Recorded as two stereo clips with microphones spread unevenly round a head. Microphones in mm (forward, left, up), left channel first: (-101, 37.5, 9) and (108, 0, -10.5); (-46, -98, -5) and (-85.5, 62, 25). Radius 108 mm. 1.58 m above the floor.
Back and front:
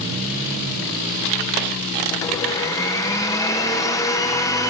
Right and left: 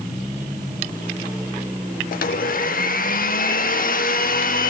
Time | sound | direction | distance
2.1 | a blender | 115° right | 1.0 m